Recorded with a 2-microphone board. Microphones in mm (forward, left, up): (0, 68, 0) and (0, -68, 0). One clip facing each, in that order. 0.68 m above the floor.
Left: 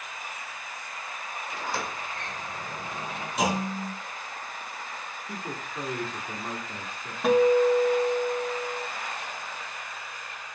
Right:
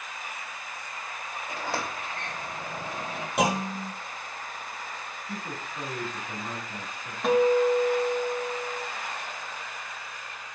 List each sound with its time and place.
1.5 s a sliding door: 75° right (ahead or behind), 2.5 m
3.4 s a clunk: 65° right (ahead or behind), 0.9 m
5.3 s a man speaking: 20° left (ahead or behind), 1.3 m
7.2 s a guitar: centre (ahead or behind), 0.7 m